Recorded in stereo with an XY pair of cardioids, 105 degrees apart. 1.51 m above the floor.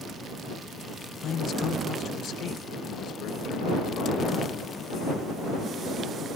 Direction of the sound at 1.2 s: 55° left.